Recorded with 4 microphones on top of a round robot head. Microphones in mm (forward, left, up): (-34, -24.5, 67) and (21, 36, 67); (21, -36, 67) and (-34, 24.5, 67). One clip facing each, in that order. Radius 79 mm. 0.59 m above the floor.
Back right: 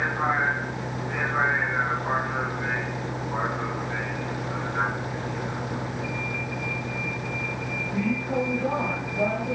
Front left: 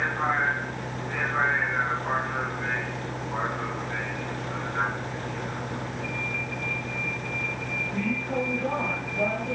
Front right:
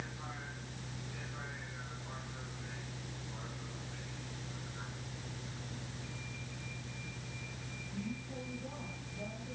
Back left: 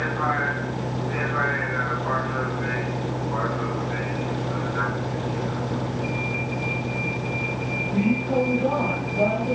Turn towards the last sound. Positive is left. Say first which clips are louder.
# back right 1 dB, back left 22 dB
turn(degrees=145)